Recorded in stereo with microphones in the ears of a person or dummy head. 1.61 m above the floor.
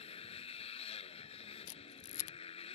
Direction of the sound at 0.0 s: 35° left (ahead or behind).